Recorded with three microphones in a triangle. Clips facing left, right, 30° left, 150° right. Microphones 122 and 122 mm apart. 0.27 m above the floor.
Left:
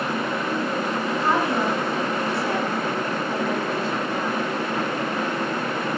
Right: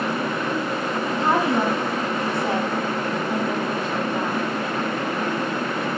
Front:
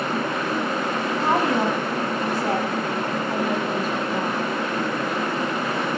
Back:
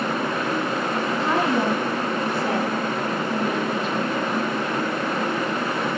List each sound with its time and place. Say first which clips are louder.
1.2 s a woman speaking: right 3 dB, front 1 dB; 20° right, 2.5 m